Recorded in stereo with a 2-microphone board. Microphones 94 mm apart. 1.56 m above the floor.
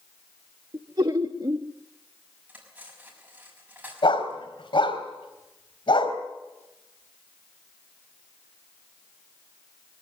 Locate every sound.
0.7 s laughter: 45° right (ahead or behind), 0.9 m
2.5 s cutlery clinking: 15° right (ahead or behind), 6 m
4.0 s a dog barking: 75° left (ahead or behind), 3.5 m